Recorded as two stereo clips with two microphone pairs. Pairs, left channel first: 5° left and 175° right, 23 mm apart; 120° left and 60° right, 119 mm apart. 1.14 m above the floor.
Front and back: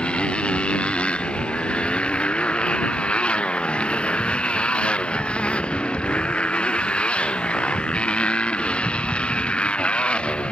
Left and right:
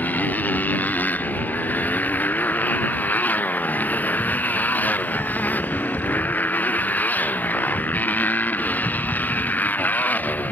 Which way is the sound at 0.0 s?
45° left.